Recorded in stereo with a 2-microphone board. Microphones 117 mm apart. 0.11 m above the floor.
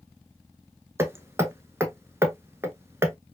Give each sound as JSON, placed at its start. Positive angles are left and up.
{"t": 1.0, "sound": "hammering", "side_deg": -25, "distance_m": 0.7}